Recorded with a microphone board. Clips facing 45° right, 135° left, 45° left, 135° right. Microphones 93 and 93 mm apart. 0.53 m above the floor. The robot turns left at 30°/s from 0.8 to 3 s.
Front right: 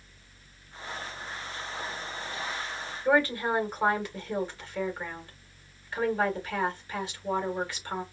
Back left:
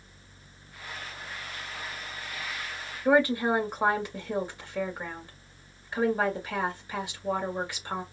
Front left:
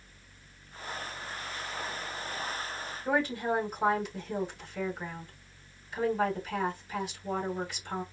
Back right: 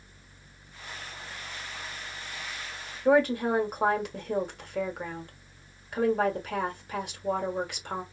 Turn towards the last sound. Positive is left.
turn(degrees=-155)